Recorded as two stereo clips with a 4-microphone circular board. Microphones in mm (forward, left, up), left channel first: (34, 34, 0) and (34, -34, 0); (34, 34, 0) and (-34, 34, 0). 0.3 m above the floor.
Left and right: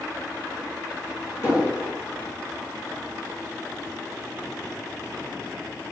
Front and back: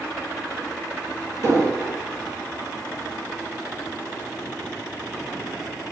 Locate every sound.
1.4 s an explosion: 145° left, 1.9 m